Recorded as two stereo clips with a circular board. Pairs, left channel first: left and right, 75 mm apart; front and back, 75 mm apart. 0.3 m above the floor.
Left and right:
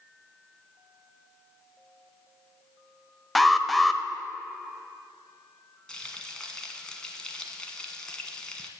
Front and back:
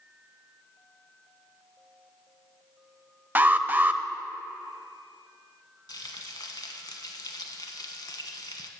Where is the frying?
10° left, 1.3 m.